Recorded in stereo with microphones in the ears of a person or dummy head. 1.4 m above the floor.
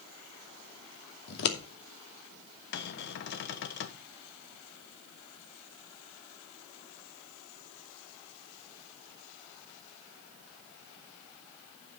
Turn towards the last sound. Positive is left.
turn(degrees=60)  # may be behind; listen again after turning